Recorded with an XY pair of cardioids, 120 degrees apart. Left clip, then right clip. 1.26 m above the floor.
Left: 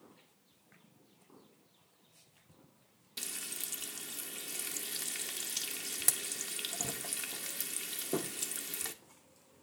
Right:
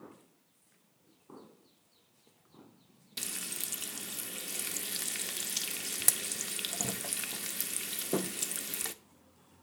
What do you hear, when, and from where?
3.2 s frying: 20° right, 0.8 m